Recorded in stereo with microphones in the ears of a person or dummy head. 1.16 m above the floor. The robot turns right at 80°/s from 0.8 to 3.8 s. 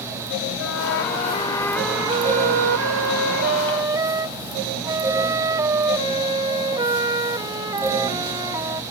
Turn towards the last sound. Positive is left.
turn(degrees=-20)